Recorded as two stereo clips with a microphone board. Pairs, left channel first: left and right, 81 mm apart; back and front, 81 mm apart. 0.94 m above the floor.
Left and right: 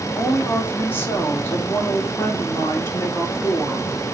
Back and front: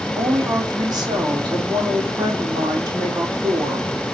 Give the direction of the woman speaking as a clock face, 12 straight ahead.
11 o'clock.